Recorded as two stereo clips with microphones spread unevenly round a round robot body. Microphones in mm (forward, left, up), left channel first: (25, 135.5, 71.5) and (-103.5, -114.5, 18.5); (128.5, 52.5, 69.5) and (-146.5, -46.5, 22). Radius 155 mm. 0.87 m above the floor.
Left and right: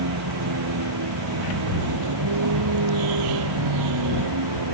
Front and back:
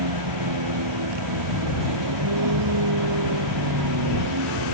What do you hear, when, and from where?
0.0 s a vehicle: 145° right; by 4.7 s 125° right